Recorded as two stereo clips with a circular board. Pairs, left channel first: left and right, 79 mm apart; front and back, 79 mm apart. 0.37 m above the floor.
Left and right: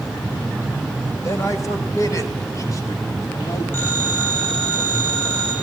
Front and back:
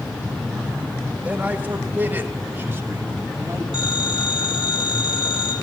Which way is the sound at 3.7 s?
30° left.